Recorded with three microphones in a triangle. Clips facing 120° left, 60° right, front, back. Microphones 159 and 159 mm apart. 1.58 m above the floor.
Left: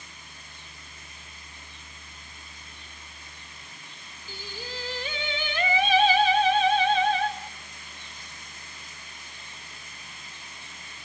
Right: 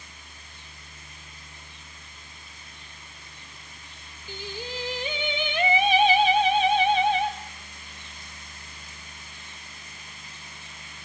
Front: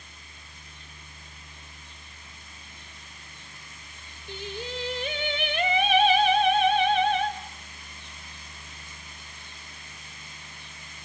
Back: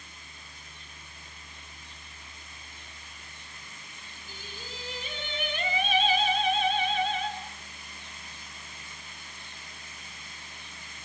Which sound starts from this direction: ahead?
Singing, at 4.3 s.